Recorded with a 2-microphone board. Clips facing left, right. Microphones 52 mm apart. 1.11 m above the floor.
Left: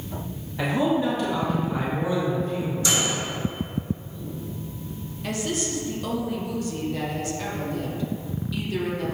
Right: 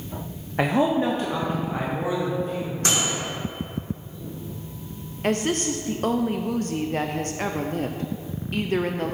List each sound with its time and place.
0.6 s a man speaking: 50° right (ahead or behind), 0.7 m; by 2.7 s 20° right (ahead or behind), 1.8 m
2.8 s a microwave: 50° right (ahead or behind), 2 m
5.2 s a woman speaking: 45° right (ahead or behind), 0.5 m